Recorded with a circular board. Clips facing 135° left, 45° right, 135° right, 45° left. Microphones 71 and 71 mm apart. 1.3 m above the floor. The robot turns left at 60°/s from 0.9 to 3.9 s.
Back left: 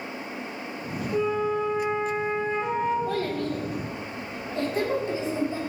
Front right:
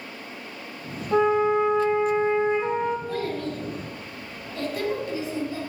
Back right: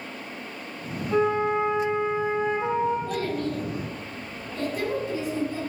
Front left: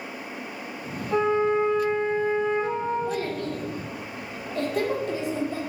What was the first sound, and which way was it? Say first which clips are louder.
A flute: front right 6 dB, front left 1 dB; 30° right.